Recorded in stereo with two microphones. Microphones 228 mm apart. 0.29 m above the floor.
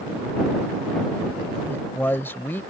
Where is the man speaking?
10° left (ahead or behind).